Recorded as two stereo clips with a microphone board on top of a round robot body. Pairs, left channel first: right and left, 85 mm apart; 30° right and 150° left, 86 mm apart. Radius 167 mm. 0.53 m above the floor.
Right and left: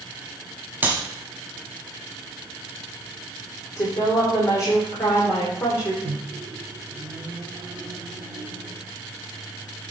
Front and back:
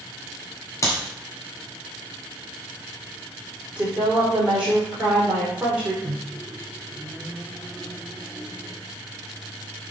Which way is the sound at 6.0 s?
45° left.